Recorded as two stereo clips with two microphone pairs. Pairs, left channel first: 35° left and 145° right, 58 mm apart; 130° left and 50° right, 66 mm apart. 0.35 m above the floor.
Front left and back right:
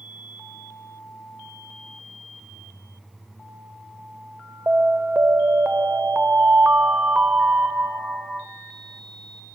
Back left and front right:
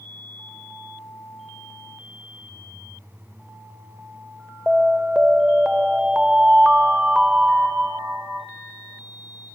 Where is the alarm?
135° right, 0.7 m.